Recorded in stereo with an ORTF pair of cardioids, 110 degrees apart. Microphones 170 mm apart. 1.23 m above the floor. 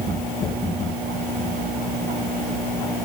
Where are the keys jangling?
I don't hear keys jangling.